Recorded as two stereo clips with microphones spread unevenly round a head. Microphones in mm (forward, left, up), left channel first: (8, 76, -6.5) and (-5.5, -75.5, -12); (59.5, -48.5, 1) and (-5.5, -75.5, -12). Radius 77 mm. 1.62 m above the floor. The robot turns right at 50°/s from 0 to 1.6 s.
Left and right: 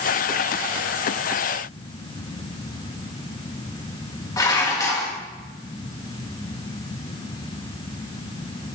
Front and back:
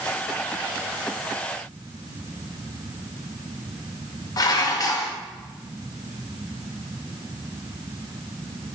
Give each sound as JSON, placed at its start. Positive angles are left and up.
{"t": 4.4, "sound": "dishes clattering", "azimuth_deg": 20, "distance_m": 1.5}